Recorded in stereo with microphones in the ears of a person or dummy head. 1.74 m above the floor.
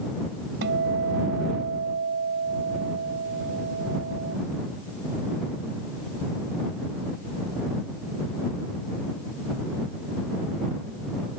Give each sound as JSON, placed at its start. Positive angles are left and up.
{"t": 0.6, "sound": "a guitar", "side_deg": -55}